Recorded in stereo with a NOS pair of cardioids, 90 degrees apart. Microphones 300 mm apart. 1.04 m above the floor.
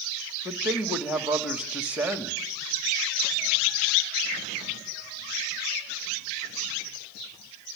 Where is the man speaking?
5° right, 2.5 m.